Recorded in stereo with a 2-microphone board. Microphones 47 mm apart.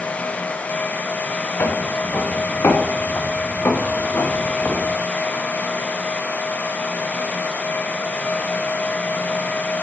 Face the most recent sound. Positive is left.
turn(degrees=50)  # may be behind; listen again after turning